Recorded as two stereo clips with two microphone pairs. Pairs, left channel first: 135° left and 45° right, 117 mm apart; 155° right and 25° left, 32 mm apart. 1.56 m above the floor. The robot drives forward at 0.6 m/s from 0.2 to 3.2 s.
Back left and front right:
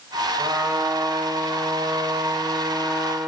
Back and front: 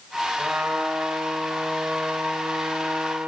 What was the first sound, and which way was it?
A trumpet, 25° left.